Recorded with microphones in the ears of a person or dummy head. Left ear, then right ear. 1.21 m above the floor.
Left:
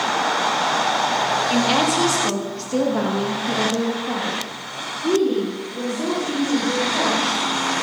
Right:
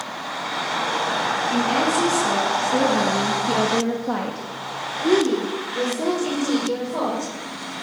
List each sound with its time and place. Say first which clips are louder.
1.5 s a woman speaking: left 1 dB; 35° left (ahead or behind), 2.5 m; by 7.3 s 85° right, 5.5 m